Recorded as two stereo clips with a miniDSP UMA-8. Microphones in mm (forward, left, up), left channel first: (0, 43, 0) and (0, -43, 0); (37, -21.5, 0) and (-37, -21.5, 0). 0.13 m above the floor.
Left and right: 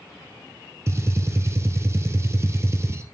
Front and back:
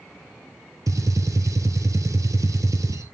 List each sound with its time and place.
0.9 s a gunshot: 145° right, 1.0 m